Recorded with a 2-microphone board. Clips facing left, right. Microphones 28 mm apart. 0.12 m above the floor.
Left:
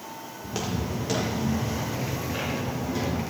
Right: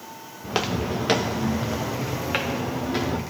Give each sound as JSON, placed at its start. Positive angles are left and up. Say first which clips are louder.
{"t": 0.4, "sound": "footsteps", "louder": "right 6 dB", "side_deg": -40, "distance_m": 0.8}